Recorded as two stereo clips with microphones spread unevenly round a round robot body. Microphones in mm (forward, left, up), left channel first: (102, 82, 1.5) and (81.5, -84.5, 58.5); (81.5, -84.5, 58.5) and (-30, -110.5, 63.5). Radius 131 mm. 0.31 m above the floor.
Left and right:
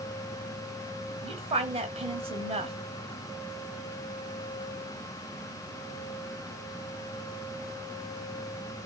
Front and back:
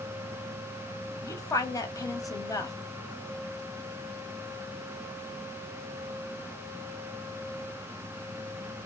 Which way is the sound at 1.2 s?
30° right.